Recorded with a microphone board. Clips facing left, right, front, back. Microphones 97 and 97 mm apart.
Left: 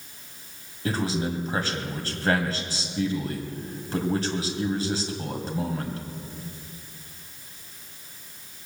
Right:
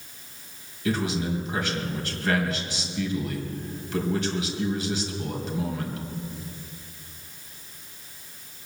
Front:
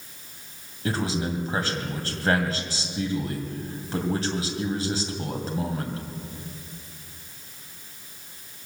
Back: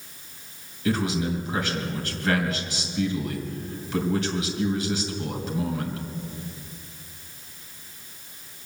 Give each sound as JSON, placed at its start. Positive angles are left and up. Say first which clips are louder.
{"t": 0.8, "sound": "a man speaking", "louder": "right 1 dB, back 2 dB", "azimuth_deg": 45, "distance_m": 2.5}